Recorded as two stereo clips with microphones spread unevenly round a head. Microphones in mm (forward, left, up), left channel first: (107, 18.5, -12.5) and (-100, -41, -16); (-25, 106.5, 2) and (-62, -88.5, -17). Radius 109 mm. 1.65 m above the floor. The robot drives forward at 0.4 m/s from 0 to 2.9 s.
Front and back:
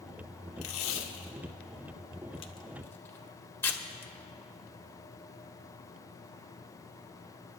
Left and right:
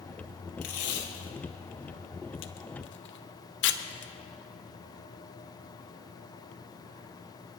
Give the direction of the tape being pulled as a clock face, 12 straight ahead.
11 o'clock.